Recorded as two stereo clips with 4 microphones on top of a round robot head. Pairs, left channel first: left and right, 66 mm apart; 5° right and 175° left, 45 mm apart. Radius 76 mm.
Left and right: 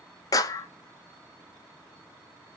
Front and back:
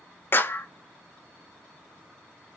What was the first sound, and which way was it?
A clap, 45° left.